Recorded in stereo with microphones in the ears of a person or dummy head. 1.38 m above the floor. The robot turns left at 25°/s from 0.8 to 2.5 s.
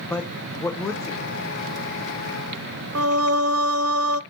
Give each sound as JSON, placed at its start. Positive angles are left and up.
{"t": 0.1, "sound": "a man speaking", "side_deg": 0, "distance_m": 0.9}
{"t": 3.0, "sound": "singing", "side_deg": -75, "distance_m": 0.8}